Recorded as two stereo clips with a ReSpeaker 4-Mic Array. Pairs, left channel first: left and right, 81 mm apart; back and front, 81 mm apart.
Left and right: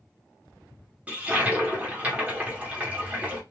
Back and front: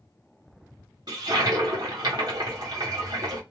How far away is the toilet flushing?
About 1.3 m.